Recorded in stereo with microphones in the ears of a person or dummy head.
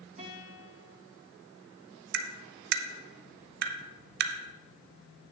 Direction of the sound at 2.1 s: 55° right (ahead or behind).